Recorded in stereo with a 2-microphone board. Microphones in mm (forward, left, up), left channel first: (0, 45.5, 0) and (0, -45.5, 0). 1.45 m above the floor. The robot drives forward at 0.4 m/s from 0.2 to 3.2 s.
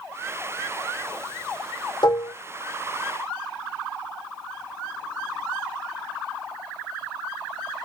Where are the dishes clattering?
55° left (ahead or behind), 0.9 m; by 2.4 s 50° left (ahead or behind), 1.0 m.